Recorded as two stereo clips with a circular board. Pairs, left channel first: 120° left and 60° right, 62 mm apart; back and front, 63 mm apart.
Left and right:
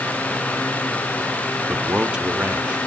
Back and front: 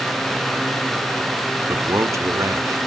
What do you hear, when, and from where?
1.7 s a man speaking: 10° left, 1.3 m